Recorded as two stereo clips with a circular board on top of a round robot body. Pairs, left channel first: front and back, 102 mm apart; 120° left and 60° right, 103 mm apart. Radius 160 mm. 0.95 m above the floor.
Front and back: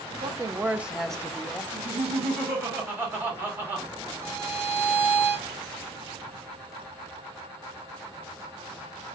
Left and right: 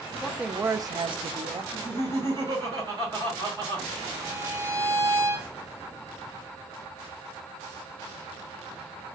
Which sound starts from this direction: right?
Laughter, at 1.7 s.